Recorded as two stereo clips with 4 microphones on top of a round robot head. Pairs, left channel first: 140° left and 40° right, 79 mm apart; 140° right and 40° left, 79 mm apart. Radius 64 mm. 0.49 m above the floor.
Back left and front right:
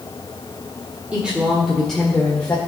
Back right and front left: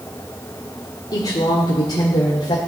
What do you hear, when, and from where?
1.1 s a woman speaking: 115° right, 1.7 m; by 2.6 s 150° right, 1.8 m